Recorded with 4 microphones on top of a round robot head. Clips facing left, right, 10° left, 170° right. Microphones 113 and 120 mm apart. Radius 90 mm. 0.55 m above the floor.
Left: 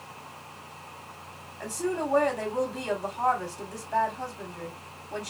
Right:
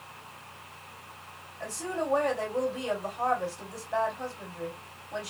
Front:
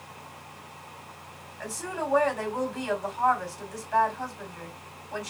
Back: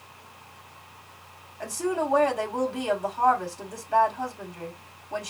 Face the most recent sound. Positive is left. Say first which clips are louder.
# left 3 dB, back 6 dB
turn(degrees=135)